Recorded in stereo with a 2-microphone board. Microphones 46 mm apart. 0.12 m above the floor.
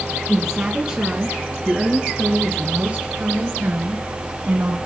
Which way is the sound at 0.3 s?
15° right (ahead or behind).